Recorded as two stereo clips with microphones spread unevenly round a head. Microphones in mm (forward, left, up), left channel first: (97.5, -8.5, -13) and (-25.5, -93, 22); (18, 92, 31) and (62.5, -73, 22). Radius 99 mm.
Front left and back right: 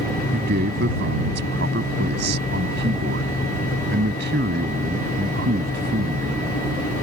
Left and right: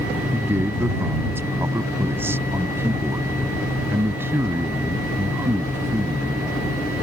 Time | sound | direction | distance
0.3 | a man speaking | 155° right | ?